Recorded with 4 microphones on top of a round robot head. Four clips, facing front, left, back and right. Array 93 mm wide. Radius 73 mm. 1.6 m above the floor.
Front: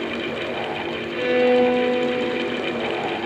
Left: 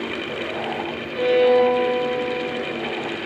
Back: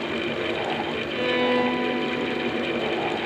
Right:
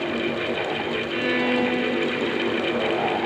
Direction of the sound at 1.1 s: 90° right.